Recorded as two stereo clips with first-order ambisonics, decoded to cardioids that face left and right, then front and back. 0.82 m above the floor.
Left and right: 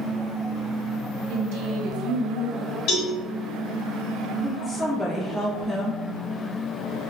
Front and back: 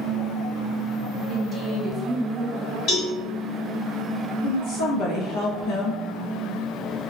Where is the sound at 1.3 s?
105° right, 0.9 m.